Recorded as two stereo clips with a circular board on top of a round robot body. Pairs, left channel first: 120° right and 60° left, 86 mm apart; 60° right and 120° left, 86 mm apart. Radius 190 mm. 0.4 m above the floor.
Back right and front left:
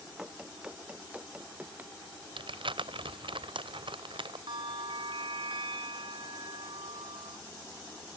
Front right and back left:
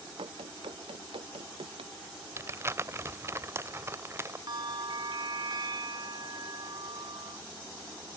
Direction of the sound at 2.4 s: 60° left.